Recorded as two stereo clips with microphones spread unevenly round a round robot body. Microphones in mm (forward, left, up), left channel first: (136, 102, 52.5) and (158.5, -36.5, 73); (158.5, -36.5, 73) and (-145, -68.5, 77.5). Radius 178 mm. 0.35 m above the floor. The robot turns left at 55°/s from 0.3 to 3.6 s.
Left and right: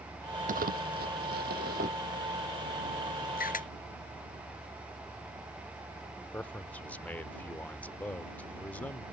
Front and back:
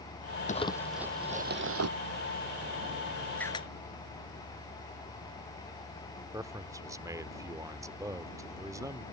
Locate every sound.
0.5 s crumpling: 60° right; by 1.9 s 140° right
3.4 s a camera shutter: 95° left; by 3.7 s 80° left
6.3 s a man speaking: 120° left